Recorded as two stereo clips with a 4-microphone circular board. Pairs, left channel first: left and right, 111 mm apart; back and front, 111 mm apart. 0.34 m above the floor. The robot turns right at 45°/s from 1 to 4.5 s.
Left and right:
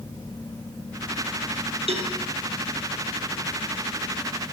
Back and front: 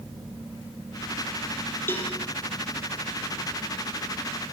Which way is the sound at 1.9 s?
110° right.